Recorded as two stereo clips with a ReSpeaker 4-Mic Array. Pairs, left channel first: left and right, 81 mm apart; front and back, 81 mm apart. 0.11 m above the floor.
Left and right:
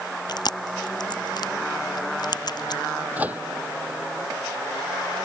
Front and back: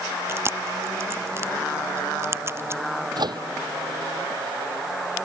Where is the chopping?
No chopping in this recording.